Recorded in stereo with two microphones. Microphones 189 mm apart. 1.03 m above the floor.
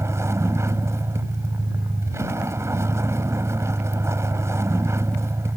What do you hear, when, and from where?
0.0 s a vehicle: 15° right (ahead or behind)